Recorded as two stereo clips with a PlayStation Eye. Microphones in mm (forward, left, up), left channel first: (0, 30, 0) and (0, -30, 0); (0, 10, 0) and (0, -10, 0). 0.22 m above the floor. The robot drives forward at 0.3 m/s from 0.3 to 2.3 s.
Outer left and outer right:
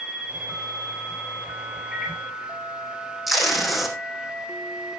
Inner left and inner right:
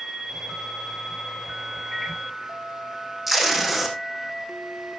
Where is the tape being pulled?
5° right (ahead or behind), 4 m.